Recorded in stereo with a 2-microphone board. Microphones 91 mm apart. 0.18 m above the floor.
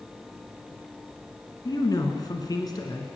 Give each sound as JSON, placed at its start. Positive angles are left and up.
{"t": 1.6, "sound": "a man speaking", "side_deg": 50, "distance_m": 2.0}